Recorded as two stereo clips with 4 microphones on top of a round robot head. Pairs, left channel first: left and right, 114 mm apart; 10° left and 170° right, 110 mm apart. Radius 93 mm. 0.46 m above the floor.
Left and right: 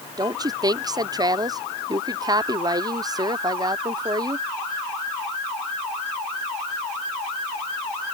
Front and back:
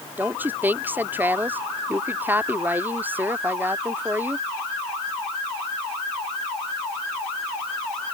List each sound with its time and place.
0.2 s a woman speaking: 110° right